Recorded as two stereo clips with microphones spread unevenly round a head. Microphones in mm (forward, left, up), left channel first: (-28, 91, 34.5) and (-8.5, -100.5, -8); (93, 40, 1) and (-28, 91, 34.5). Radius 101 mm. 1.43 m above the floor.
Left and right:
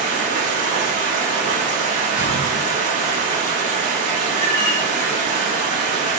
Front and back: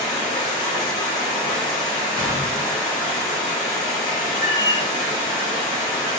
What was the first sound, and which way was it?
Running water, 130° right.